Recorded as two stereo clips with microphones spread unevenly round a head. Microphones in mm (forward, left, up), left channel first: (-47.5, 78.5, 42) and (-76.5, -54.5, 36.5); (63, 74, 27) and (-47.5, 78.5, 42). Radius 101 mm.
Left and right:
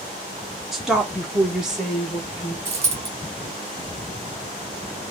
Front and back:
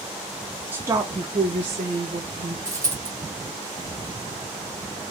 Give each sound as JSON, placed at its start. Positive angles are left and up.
{"t": 0.7, "sound": "a woman speaking", "azimuth_deg": 170, "distance_m": 0.5}
{"t": 2.6, "sound": "a dropped coin", "azimuth_deg": -155, "distance_m": 1.3}